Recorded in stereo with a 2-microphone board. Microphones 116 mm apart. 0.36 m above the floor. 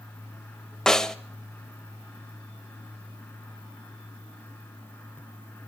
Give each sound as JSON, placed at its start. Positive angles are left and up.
{"t": 0.9, "sound": "a snare drum", "side_deg": 5, "distance_m": 0.8}